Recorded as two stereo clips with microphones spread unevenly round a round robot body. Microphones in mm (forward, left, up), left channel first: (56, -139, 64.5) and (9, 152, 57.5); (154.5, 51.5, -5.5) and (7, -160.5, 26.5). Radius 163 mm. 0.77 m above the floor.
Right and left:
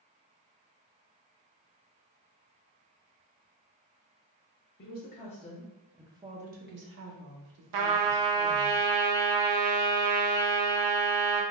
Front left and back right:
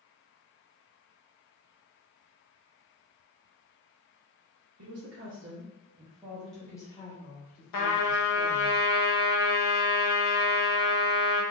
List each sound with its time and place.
4.8 s a woman speaking: 130° right, 0.9 m; by 8.7 s 95° left, 1.5 m
7.7 s a trumpet: 85° left, 0.6 m